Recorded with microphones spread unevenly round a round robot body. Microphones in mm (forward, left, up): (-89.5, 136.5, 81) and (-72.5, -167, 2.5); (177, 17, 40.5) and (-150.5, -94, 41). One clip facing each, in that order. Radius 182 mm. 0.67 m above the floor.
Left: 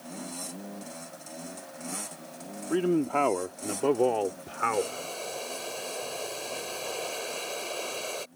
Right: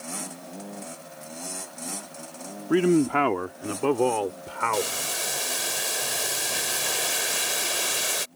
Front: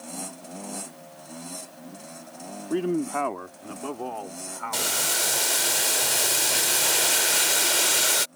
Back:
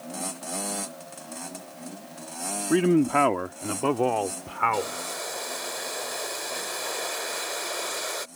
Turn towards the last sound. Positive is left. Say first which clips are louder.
# even, back 2 dB
turn(degrees=-20)